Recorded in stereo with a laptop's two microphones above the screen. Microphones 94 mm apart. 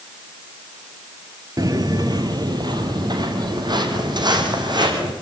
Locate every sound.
1.6 s footsteps: 40° right (ahead or behind), 1.3 m; by 5.1 s 50° right (ahead or behind), 4.5 m